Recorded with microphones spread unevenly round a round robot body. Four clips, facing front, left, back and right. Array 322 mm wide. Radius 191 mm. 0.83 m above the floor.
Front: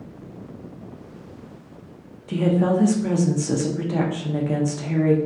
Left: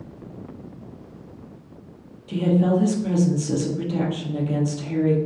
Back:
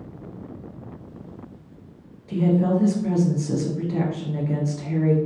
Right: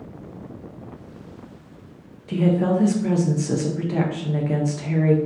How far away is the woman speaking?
About 0.6 m.